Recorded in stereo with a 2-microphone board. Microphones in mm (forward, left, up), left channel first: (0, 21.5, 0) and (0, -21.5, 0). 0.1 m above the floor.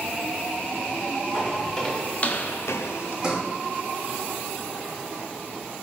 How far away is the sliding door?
About 2.5 m.